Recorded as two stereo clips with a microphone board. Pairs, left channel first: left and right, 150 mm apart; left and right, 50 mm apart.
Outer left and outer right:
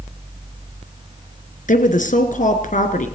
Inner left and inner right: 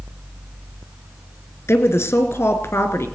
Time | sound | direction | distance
1.7 | a woman speaking | 60° left (ahead or behind) | 2.5 m